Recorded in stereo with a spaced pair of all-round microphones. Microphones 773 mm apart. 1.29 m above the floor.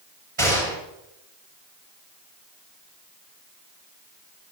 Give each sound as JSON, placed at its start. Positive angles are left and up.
{"t": 0.4, "sound": "a gunshot", "side_deg": -40, "distance_m": 9.0}